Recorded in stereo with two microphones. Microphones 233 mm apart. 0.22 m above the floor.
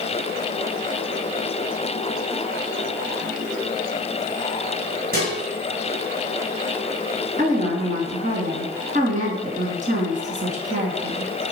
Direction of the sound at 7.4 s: 35° right (ahead or behind).